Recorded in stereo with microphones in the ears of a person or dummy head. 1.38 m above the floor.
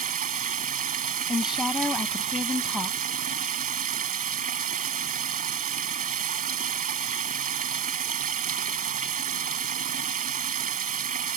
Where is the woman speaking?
5° right (ahead or behind).